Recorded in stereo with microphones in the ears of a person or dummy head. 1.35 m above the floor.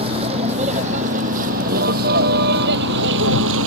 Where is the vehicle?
30° right (ahead or behind); by 3.7 s 70° right (ahead or behind).